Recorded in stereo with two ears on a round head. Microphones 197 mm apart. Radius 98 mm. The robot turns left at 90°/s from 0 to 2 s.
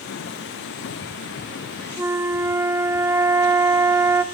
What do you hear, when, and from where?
2.0 s a flute: 10° right (ahead or behind), 1.3 m